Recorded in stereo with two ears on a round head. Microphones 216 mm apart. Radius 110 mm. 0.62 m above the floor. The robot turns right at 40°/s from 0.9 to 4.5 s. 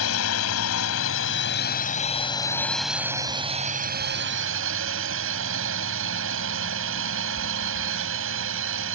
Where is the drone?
105° left; by 9.0 s 115° right.